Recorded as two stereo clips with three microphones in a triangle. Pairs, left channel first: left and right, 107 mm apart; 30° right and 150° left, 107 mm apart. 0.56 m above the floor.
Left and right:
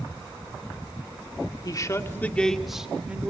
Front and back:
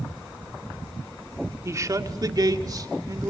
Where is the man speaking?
105° left, 1.7 m; by 3.3 s 160° right, 2.5 m.